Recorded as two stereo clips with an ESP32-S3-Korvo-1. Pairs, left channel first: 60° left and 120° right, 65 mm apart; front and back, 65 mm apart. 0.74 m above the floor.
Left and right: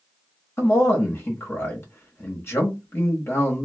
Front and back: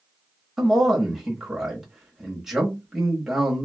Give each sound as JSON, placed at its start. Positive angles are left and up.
{"t": 0.6, "sound": "a man speaking", "azimuth_deg": 100, "distance_m": 0.8}